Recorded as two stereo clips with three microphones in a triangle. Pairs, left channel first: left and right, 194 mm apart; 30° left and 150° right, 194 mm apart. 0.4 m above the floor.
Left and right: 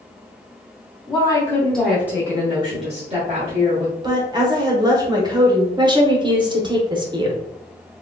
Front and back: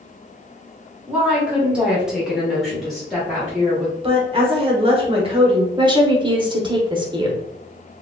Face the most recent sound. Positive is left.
turn(degrees=-120)